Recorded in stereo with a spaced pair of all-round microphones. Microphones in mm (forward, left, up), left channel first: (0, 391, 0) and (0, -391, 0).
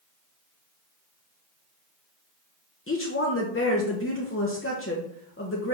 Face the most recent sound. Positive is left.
turn(degrees=15)  # may be behind; listen again after turning